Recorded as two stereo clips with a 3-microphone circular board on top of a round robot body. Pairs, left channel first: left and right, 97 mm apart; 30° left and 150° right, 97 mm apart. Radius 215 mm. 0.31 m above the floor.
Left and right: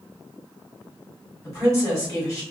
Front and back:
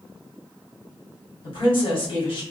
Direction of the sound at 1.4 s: 25° left.